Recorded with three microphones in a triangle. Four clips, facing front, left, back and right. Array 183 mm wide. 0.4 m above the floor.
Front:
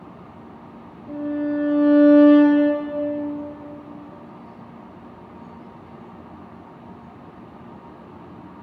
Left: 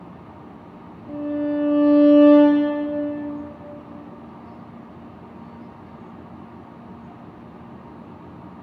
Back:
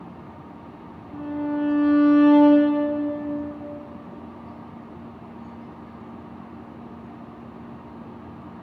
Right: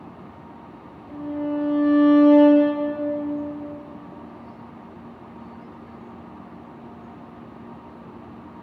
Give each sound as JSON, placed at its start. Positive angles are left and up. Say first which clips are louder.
{"t": 1.1, "sound": "a violin", "louder": "left 3 dB, front 3 dB", "azimuth_deg": 30, "distance_m": 2.5}